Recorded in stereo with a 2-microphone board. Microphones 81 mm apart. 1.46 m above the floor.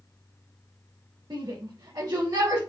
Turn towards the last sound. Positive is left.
turn(degrees=-50)  # may be behind; listen again after turning